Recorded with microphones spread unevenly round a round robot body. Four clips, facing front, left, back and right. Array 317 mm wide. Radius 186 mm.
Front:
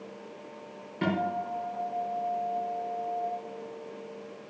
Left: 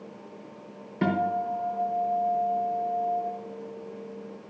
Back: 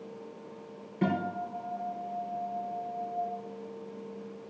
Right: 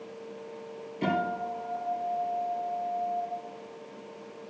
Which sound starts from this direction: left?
A guitar, at 1.0 s.